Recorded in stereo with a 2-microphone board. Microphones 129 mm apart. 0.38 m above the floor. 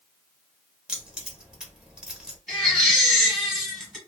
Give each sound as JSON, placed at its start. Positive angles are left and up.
{"t": 0.9, "sound": "keys jangling", "side_deg": -5, "distance_m": 0.9}
{"t": 2.5, "sound": "a baby crying", "side_deg": 5, "distance_m": 1.6}